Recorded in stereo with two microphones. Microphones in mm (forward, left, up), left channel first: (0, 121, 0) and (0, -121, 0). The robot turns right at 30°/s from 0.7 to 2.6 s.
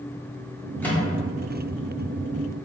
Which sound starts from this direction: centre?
A microwave, at 0.8 s.